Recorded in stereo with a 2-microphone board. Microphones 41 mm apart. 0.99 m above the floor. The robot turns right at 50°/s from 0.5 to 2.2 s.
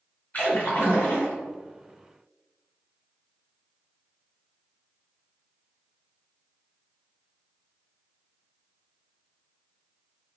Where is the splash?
50° left, 1.8 m; by 1.4 s 90° left, 1.8 m.